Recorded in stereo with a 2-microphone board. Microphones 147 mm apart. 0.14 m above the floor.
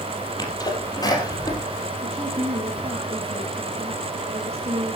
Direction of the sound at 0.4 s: 25° left (ahead or behind).